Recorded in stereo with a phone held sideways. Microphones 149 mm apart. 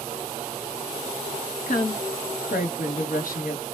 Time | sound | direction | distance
1.7 | a woman speaking | 65° left (ahead or behind) | 1.2 m